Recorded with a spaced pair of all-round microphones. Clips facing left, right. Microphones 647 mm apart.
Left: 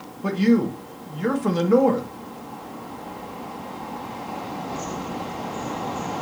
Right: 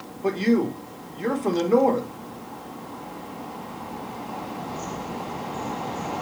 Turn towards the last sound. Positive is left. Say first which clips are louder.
# left 2 dB
turn(degrees=40)  # may be behind; listen again after turning